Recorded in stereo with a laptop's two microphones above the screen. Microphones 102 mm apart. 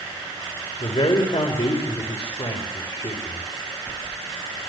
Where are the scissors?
No scissors in this recording.